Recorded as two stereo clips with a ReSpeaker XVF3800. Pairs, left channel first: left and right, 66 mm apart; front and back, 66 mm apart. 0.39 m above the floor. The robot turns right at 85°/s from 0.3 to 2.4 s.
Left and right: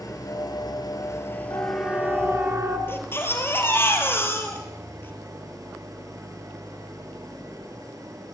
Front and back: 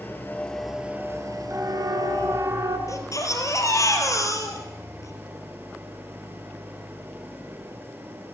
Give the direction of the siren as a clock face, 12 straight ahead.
8 o'clock.